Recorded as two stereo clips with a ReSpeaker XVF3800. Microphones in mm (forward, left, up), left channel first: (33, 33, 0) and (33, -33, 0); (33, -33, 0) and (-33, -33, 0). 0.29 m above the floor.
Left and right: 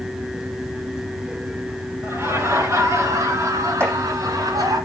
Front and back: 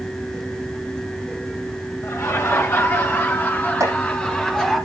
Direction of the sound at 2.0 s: 45° right.